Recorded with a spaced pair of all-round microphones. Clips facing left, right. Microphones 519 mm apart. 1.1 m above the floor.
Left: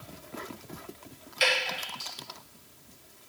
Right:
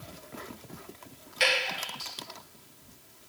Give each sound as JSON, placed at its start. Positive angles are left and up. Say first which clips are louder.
{"t": 1.4, "sound": "dripping", "louder": "even", "side_deg": -75, "distance_m": 4.0}